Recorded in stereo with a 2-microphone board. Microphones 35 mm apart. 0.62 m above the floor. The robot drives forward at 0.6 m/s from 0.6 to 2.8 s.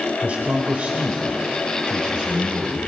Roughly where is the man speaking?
Right.